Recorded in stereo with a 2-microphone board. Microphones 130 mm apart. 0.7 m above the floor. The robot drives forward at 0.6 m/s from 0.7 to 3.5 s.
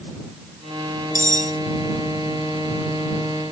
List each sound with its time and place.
1.1 s cutlery clinking: 85° left; by 1.6 s 70° left (ahead or behind)